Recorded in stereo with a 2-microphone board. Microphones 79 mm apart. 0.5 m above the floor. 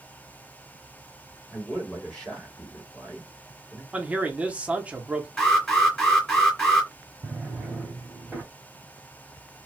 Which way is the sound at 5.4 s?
5° left (ahead or behind).